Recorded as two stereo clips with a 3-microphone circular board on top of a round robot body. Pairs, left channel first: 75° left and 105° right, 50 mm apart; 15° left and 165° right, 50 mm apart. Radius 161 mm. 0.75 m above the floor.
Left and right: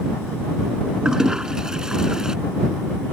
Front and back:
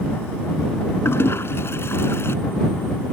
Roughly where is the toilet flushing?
Ahead right.